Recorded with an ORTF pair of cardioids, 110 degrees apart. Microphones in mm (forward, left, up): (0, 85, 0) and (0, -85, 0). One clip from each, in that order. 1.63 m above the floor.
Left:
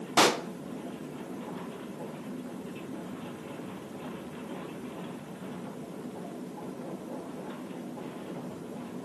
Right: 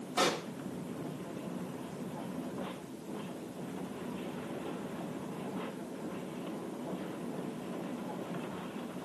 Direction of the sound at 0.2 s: 65° left.